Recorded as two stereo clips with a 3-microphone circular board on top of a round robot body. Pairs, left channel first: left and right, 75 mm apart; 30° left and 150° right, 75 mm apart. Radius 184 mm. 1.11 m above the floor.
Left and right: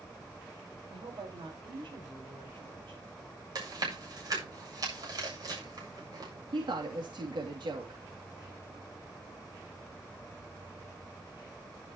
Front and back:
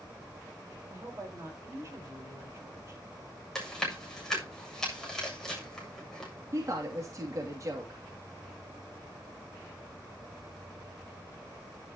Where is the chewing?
55° right, 7.5 m.